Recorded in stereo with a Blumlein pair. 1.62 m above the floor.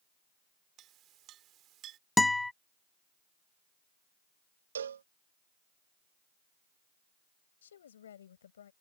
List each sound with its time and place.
0.8 s a clink: 30° right
2.2 s a guitar: 5° left
4.8 s a cowbell: 65° right
7.6 s a woman speaking: 65° left